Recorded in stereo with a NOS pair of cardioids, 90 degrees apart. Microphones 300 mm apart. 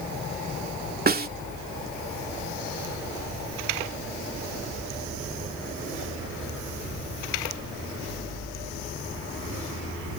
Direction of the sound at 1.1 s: 30° right.